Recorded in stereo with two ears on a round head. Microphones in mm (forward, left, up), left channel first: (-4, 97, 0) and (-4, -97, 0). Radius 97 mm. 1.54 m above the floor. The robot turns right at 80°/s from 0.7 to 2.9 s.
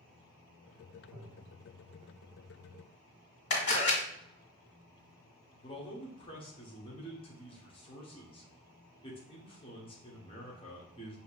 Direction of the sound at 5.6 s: 25° left (ahead or behind).